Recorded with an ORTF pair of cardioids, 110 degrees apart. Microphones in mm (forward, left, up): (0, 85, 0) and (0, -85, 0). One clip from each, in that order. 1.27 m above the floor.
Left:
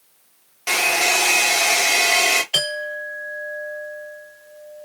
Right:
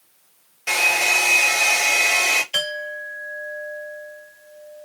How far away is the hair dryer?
About 2 m.